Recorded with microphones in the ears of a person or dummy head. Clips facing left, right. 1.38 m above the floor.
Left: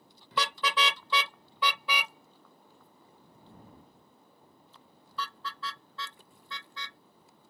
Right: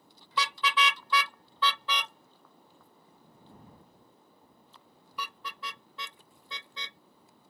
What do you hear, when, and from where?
0.3 s a car horn: 50° left (ahead or behind); by 7.0 s 20° right (ahead or behind)